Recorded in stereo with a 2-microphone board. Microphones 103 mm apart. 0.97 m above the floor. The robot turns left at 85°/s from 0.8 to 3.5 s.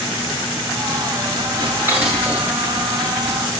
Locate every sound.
1.6 s dishes clattering: 45° right (ahead or behind), 8.5 m; by 3.4 s 75° left (ahead or behind), 8.5 m